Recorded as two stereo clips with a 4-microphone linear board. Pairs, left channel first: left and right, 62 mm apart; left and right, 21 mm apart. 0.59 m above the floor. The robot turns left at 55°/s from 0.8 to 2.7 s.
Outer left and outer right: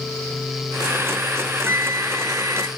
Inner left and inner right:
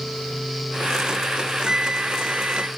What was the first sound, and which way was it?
A flute, 45° right.